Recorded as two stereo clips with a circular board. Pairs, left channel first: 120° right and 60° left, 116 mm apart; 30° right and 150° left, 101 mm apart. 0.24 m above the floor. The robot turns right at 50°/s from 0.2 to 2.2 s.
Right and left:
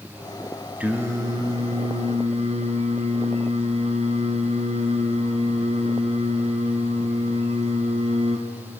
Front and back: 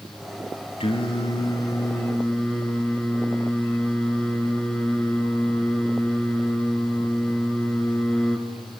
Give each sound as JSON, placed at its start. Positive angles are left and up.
{"t": 0.8, "sound": "singing", "azimuth_deg": -20, "distance_m": 2.5}